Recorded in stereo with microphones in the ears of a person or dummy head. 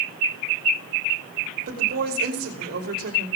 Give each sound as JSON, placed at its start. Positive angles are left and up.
{"t": 1.7, "sound": "a woman speaking", "side_deg": -55, "distance_m": 5.5}